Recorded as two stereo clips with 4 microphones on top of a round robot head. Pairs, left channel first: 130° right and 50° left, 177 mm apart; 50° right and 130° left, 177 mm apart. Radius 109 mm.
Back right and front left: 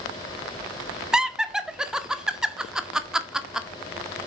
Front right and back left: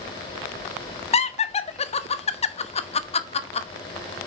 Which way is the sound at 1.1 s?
35° right.